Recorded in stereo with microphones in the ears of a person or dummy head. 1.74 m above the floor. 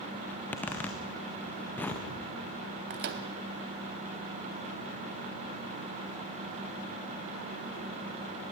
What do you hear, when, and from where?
0.3 s a zipper: 10° left (ahead or behind), 1.5 m
2.9 s a microwave: 50° right (ahead or behind), 0.8 m